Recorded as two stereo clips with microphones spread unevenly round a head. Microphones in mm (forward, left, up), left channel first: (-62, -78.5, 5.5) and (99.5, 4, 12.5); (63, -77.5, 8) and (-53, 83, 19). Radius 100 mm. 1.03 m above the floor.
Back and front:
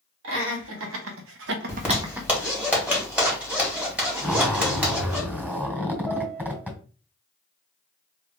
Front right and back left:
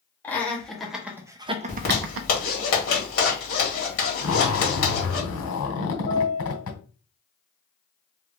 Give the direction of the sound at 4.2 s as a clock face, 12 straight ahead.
2 o'clock.